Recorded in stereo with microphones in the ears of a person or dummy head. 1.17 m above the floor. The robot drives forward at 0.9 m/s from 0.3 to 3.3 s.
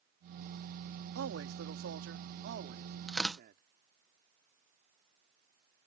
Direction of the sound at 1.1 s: 75° right (ahead or behind).